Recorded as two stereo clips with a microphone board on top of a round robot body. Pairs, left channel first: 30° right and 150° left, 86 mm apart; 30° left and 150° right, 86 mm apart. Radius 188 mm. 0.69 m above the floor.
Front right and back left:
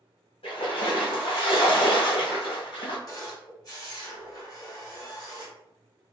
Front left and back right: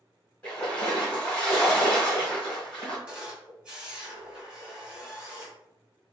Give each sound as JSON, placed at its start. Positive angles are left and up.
{"t": 0.4, "sound": "a splash", "azimuth_deg": -45, "distance_m": 1.5}
{"t": 3.1, "sound": "a camera shutter", "azimuth_deg": -75, "distance_m": 1.7}